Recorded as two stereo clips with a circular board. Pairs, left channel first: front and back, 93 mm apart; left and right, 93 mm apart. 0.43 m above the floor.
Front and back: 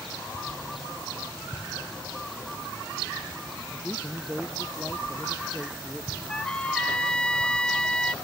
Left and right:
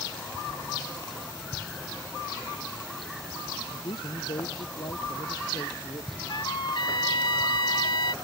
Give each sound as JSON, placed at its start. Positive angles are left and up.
{"t": 3.7, "sound": "a man speaking", "azimuth_deg": 90}
{"t": 6.3, "sound": "a trumpet", "azimuth_deg": 75}